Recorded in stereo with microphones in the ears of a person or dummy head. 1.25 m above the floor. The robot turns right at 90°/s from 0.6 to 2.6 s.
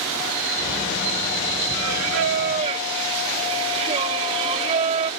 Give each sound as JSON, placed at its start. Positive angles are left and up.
{"t": 1.7, "sound": "singing", "azimuth_deg": -110}